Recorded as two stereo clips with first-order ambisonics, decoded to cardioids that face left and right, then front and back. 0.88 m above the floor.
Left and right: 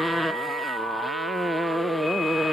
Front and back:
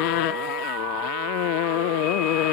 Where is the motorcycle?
5° left.